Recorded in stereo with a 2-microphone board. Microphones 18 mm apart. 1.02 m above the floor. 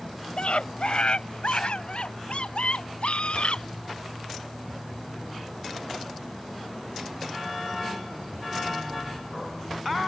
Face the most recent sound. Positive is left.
turn(degrees=80)